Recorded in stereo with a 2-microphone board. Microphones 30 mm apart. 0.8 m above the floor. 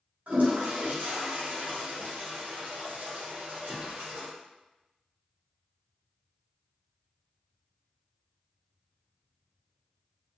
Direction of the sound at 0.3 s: 70° right (ahead or behind).